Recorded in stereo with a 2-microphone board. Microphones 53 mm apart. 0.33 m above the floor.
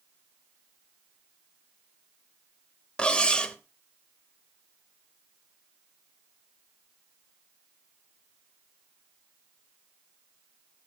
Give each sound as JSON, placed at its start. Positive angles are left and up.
{"t": 3.0, "sound": "cutlery clinking", "side_deg": 20, "distance_m": 0.8}